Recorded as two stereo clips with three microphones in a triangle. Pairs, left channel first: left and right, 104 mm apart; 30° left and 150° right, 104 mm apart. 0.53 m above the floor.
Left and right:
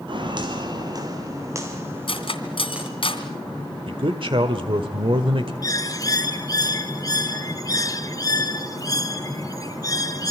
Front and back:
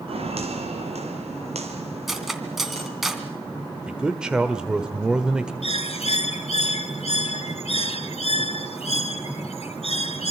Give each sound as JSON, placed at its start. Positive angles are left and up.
{"t": 0.1, "sound": "footsteps", "azimuth_deg": -130, "distance_m": 5.5}
{"t": 2.1, "sound": "cutlery clinking", "azimuth_deg": 120, "distance_m": 2.5}
{"t": 3.9, "sound": "a man speaking", "azimuth_deg": -70, "distance_m": 1.5}
{"t": 5.6, "sound": "a bird", "azimuth_deg": 35, "distance_m": 1.6}